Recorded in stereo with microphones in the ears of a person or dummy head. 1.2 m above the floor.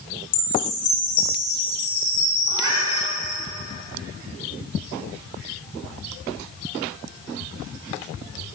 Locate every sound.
0.3 s a chime: 70° left (ahead or behind), 4 m
2.5 s a cat meowing: 25° right (ahead or behind), 6 m